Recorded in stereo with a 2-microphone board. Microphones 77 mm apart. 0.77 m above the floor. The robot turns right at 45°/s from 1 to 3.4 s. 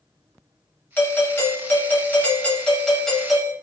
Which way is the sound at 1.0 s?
25° left (ahead or behind).